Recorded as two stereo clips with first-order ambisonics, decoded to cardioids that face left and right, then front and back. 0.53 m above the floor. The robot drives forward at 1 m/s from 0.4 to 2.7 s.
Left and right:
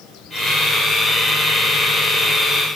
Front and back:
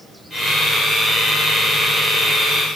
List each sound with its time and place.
Only background noise.